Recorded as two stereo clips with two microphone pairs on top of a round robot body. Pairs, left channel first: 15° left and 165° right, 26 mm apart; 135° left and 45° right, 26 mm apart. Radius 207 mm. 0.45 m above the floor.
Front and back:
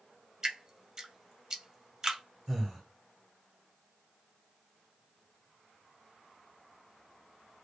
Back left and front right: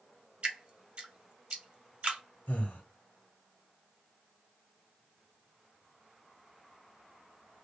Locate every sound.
0.4 s dripping: 95° right, 1.0 m
2.5 s breathing: 100° left, 0.9 m